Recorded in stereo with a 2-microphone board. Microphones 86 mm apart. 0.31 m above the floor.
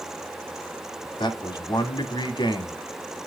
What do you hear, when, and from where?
1.2 s a man speaking: 60° left (ahead or behind), 1.9 m